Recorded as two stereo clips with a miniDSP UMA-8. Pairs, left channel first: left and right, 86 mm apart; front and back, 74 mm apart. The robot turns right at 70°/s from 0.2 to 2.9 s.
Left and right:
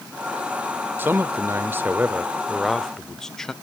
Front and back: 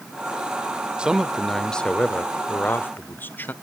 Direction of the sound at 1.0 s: 120° right.